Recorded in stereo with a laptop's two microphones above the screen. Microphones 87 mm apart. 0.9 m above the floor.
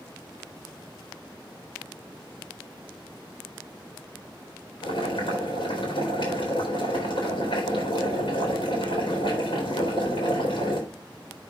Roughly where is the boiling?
Left.